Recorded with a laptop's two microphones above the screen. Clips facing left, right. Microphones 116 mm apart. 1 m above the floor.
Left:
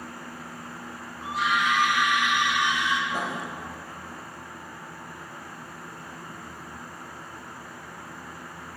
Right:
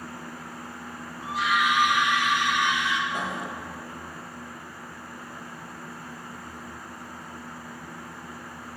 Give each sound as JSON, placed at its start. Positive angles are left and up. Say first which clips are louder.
{"t": 1.2, "sound": "a scream", "louder": "right 1 dB", "side_deg": 5, "distance_m": 1.3}
{"t": 3.1, "sound": "writing", "louder": "left 1 dB", "side_deg": 5, "distance_m": 1.2}